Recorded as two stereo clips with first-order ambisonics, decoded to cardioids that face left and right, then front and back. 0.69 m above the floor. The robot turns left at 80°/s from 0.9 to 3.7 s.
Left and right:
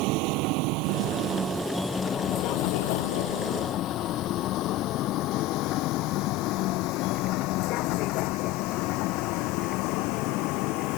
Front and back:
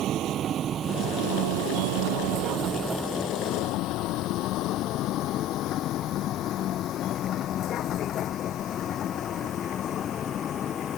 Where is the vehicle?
120° right; by 11.0 s 60° left.